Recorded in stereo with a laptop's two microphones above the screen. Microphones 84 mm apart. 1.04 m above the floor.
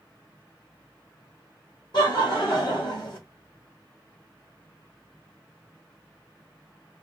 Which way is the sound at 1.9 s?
75° left (ahead or behind).